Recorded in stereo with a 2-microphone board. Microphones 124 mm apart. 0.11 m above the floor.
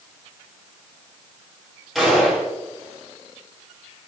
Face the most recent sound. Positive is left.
turn(degrees=0)  # may be behind; listen again after turning